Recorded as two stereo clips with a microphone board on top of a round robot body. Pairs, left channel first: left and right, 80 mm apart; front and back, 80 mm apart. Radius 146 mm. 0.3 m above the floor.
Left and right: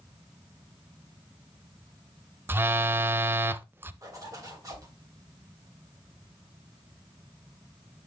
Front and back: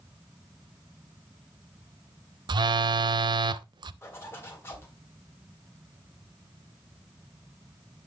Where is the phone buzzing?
155° right, 0.5 m.